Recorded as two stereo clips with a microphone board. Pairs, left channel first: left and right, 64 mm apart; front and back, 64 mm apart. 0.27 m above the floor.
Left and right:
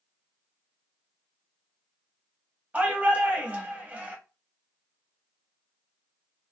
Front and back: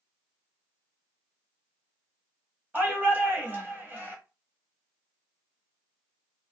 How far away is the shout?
About 1.1 m.